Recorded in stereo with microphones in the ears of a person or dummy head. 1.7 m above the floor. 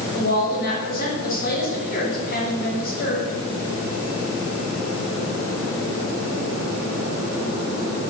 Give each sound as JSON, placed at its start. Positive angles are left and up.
{"t": 0.1, "sound": "a woman speaking", "side_deg": 60, "distance_m": 7.0}